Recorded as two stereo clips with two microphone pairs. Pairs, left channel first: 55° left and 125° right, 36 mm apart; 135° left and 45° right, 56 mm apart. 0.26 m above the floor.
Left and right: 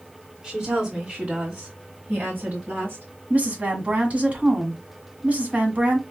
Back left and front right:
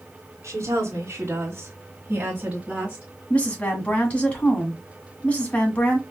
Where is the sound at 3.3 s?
165° right, 1.8 m.